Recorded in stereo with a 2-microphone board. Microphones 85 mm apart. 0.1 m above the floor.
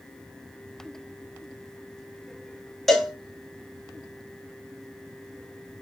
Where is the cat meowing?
No cat meowing in this recording.